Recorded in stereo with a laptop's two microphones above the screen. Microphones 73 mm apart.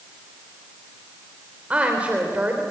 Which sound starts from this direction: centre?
A woman speaking, at 1.7 s.